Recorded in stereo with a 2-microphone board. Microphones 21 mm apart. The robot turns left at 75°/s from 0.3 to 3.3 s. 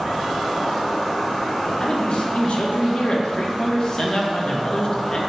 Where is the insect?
150° right, 1.6 m; by 5.3 s 15° right, 1.6 m.